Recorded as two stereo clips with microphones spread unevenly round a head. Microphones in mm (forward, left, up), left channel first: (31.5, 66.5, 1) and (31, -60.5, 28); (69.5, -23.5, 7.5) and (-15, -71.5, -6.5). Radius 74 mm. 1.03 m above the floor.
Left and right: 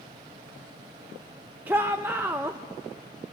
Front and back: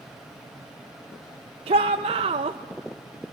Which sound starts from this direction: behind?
A shout, at 1.7 s.